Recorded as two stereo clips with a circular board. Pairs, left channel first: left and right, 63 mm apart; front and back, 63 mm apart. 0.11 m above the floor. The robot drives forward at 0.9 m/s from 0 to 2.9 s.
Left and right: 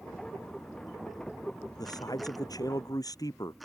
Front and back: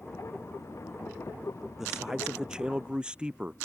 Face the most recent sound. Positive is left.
turn(degrees=105)